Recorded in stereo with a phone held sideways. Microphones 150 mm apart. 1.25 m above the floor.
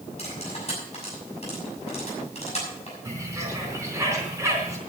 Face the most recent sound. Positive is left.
turn(degrees=-20)  # may be behind; listen again after turning